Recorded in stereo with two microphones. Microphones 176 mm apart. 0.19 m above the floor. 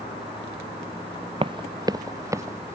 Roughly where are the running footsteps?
Right.